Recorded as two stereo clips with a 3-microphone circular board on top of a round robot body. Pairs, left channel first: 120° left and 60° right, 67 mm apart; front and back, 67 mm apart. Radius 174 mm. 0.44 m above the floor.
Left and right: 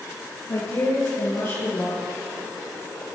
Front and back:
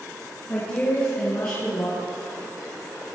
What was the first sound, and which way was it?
A woman speaking, 65° left.